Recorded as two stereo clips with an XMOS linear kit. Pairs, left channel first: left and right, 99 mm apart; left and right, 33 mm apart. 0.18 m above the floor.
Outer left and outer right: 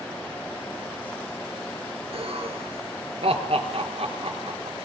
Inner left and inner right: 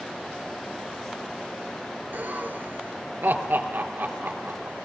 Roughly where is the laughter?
Right.